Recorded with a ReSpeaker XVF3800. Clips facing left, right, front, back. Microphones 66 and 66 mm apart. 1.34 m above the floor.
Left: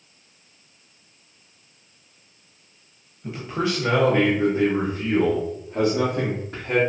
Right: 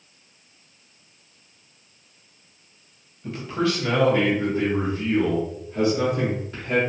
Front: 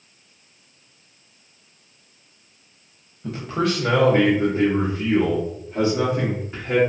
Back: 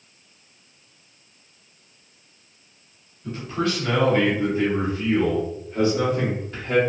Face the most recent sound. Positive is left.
turn(degrees=75)